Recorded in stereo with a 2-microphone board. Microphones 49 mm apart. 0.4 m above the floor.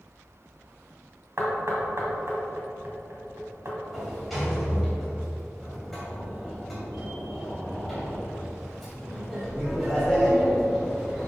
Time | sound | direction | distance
1.4 | knocking | 60° right (ahead or behind) | 2.0 m
3.9 | a sliding door | centre (ahead or behind) | 2.5 m